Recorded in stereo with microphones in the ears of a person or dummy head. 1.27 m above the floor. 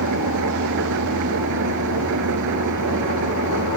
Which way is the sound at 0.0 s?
65° right (ahead or behind).